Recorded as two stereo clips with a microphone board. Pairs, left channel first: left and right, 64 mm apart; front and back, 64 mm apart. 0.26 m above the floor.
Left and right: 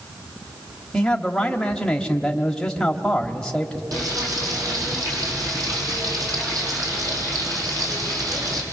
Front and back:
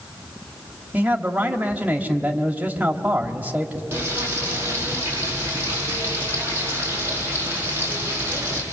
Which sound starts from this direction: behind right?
Frying, at 3.9 s.